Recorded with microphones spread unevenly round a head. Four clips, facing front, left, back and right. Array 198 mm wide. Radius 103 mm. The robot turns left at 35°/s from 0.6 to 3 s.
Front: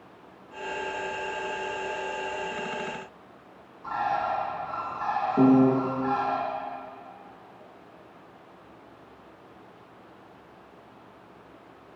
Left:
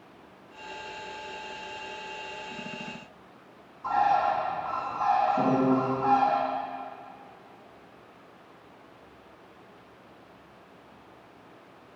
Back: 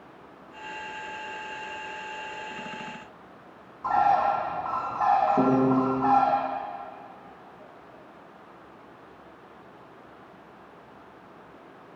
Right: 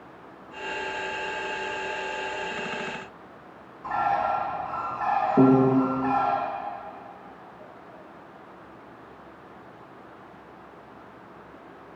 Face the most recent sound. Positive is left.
turn(degrees=-105)